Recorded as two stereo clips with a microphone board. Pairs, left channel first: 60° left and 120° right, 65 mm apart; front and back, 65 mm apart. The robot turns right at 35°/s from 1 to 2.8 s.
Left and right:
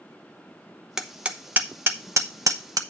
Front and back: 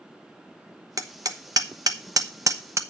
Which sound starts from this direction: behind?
Hammering, at 1.0 s.